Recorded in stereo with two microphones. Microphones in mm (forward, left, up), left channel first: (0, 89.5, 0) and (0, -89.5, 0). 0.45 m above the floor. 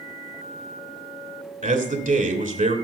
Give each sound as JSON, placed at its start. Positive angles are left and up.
{"t": 1.6, "sound": "a man speaking", "side_deg": -50, "distance_m": 2.0}